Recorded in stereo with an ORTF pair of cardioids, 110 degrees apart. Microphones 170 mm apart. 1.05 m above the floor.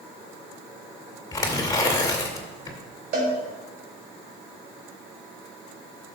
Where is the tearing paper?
20° left, 2.5 m.